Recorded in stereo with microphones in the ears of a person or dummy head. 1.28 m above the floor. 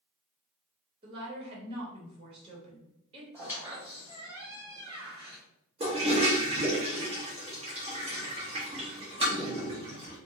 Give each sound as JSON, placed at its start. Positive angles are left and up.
{"t": 1.0, "sound": "a woman speaking", "side_deg": -25, "distance_m": 1.1}
{"t": 3.3, "sound": "a squeak", "side_deg": -15, "distance_m": 1.2}
{"t": 5.8, "sound": "a toilet flushing", "side_deg": -25, "distance_m": 0.7}